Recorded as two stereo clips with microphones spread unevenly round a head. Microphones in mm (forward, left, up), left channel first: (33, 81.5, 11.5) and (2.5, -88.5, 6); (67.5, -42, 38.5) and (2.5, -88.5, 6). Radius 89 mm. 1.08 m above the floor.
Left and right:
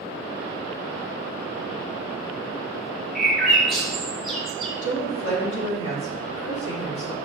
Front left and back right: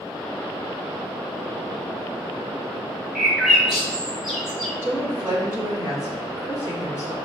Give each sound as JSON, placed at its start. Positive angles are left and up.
{"t": 3.1, "sound": "a bird", "azimuth_deg": 175, "distance_m": 0.8}
{"t": 4.8, "sound": "a woman speaking", "azimuth_deg": 100, "distance_m": 1.7}